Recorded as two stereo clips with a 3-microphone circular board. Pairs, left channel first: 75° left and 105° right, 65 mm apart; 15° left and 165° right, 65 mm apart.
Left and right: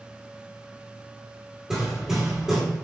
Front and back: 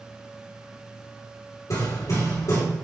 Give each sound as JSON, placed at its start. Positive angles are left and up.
{"t": 1.7, "sound": "hammering", "azimuth_deg": -25, "distance_m": 3.0}